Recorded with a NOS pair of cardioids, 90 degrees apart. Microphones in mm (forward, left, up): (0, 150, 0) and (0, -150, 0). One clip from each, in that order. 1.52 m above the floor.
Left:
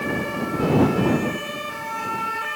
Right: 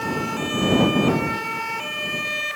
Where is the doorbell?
No doorbell in this recording.